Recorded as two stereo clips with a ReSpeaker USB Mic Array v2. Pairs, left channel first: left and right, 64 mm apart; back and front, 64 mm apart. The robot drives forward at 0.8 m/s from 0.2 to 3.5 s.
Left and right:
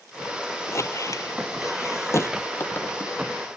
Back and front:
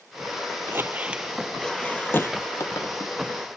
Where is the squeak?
50° left; by 3.1 s 150° left.